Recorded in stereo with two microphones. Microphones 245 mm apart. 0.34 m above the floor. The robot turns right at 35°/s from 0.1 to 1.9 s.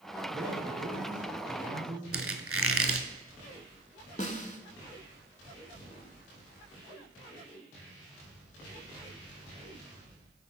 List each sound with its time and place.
0.3 s a man speaking: straight behind, 2.5 m; by 2.0 s 125° right, 2.5 m
2.1 s a squeak: 65° right (ahead or behind), 0.6 m
4.2 s a snare drum: 30° left (ahead or behind), 0.6 m